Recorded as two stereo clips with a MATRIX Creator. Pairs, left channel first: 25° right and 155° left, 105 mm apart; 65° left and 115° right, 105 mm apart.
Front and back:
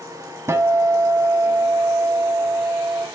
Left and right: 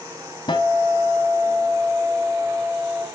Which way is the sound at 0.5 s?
100° left.